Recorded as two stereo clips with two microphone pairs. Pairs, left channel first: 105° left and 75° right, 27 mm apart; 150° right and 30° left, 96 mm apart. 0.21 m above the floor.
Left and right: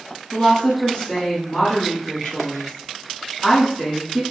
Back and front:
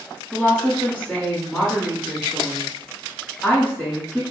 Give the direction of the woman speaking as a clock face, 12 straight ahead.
7 o'clock.